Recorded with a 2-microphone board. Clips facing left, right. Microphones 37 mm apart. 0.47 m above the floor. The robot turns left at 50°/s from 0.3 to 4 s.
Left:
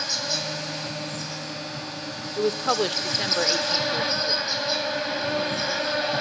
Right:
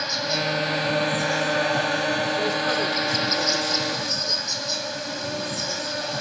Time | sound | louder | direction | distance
0.0 | an insect | right 4 dB | 15° right | 1.7 m
2.4 | a woman speaking | right 1 dB | 110° left | 1.1 m